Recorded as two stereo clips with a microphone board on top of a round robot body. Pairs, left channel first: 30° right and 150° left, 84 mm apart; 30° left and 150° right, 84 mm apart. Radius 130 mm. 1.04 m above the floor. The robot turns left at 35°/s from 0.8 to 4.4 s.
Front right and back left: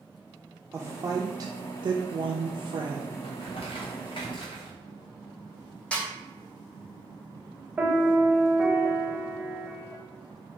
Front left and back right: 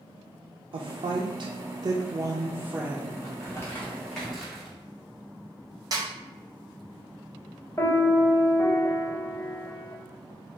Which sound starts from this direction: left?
A piano, at 7.8 s.